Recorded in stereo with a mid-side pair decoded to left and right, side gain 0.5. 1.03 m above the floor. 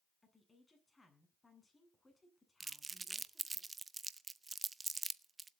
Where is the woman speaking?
15° left, 8 m.